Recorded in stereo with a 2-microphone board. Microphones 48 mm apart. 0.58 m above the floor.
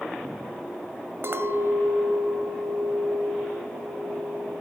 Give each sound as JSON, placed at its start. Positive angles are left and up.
{"t": 1.2, "sound": "a clink", "side_deg": -55, "distance_m": 1.7}